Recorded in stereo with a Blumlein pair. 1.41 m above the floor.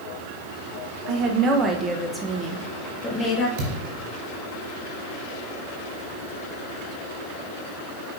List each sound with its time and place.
1.1 s a woman speaking: 35° right, 1.1 m; by 3.5 s 20° left, 1.4 m
3.6 s a thud: 35° right, 3 m